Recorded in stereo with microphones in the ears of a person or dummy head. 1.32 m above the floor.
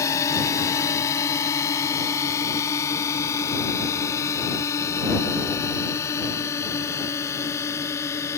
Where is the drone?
20° left (ahead or behind); by 8.4 s 15° left (ahead or behind).